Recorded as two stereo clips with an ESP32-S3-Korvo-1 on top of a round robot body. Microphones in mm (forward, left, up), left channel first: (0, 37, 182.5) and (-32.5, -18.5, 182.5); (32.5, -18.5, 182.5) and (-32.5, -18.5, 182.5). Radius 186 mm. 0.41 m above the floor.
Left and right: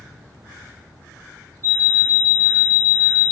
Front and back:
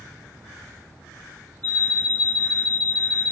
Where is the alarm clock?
170° right, 1.9 m.